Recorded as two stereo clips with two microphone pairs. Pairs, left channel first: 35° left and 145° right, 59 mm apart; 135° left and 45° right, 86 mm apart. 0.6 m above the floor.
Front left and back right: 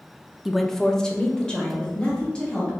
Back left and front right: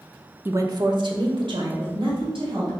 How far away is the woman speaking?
About 0.6 m.